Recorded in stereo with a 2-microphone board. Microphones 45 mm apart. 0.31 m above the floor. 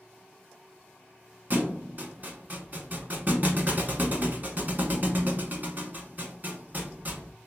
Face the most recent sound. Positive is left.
turn(degrees=-40)  # may be behind; listen again after turning